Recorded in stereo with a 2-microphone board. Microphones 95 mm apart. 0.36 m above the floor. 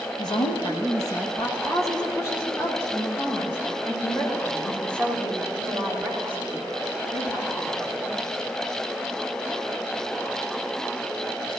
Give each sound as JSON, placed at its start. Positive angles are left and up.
{"t": 0.2, "sound": "a woman speaking", "side_deg": 50, "distance_m": 2.0}